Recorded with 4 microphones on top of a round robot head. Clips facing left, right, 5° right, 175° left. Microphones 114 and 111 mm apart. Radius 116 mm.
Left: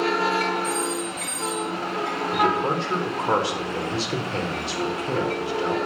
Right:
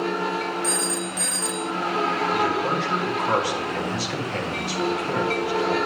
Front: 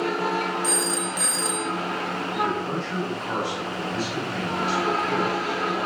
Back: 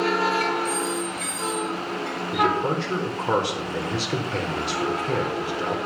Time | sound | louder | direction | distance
0.6 | a phone ringing | left 1 dB, back 1 dB | 45° right | 0.6 m
2.3 | a man speaking | left 1 dB, back 6 dB | 155° left | 4 m